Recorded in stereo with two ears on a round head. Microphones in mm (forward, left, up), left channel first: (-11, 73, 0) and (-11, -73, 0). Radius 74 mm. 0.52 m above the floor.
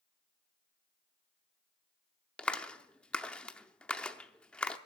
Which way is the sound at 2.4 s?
5° left (ahead or behind).